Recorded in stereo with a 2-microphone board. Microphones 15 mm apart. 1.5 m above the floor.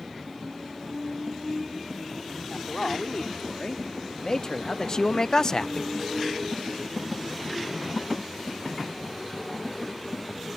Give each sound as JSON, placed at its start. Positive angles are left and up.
{"t": 2.5, "sound": "a man speaking", "side_deg": 45}